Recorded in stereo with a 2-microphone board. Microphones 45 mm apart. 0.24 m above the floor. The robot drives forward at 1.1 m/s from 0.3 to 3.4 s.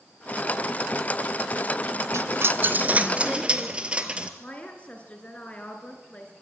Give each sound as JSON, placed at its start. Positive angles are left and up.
{"t": 2.1, "sound": "a dropped coin", "side_deg": -70, "distance_m": 0.6}
{"t": 4.4, "sound": "a woman speaking", "side_deg": 30, "distance_m": 3.0}